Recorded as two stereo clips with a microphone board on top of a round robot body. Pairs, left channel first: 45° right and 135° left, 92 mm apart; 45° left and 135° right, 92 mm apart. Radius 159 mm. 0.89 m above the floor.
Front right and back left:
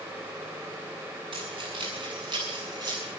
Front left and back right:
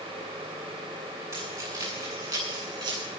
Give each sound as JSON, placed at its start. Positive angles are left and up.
{"t": 1.3, "sound": "keys jangling", "azimuth_deg": 165, "distance_m": 8.5}